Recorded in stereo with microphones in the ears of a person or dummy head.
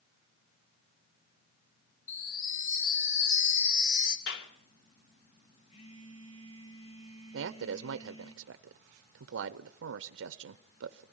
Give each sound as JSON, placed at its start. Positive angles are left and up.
{"t": 2.1, "sound": "a chime", "side_deg": 70, "distance_m": 4.5}
{"t": 4.3, "sound": "a clap", "side_deg": 75, "distance_m": 3.0}
{"t": 5.7, "sound": "a phone buzzing", "side_deg": 35, "distance_m": 5.0}
{"t": 7.3, "sound": "a man speaking", "side_deg": -80, "distance_m": 0.8}